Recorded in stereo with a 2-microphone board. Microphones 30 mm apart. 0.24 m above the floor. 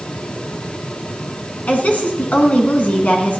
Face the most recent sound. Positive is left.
turn(degrees=60)  # may be behind; listen again after turning